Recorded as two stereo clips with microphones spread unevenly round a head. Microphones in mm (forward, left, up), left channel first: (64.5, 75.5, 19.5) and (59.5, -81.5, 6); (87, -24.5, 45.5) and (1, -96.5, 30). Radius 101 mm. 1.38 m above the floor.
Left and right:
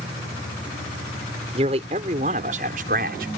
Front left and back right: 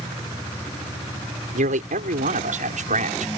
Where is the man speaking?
155° right; by 3.3 s 140° right.